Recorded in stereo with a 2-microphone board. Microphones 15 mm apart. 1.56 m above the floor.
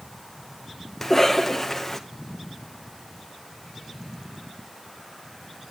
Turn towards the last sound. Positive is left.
turn(degrees=15)  # may be behind; listen again after turning